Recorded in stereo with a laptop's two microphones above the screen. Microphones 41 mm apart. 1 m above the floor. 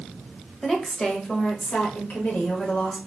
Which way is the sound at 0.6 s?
5° left (ahead or behind).